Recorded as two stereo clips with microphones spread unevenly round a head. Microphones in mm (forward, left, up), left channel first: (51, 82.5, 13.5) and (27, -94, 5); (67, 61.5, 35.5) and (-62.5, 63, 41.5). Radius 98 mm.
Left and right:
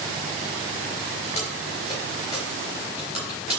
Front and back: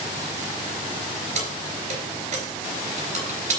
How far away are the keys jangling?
About 3.5 m.